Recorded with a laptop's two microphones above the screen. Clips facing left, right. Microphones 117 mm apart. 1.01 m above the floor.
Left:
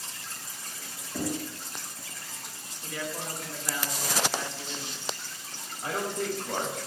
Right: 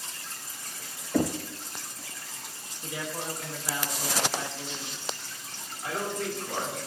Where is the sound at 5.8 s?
30° left (ahead or behind), 5 m.